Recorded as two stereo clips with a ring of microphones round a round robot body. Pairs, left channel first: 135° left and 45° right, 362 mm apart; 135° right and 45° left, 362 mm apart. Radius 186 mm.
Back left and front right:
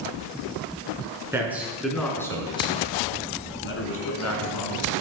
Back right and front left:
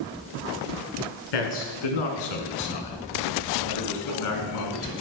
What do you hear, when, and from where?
1.3 s a man speaking: 130° right, 3.5 m; by 4.9 s 175° left, 3.5 m